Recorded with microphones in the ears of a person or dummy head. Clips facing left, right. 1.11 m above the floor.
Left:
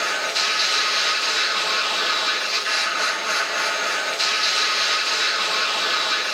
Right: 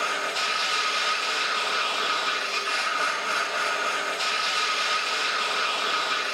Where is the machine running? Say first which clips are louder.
Left 2 dB; 25° left (ahead or behind), 2.5 m.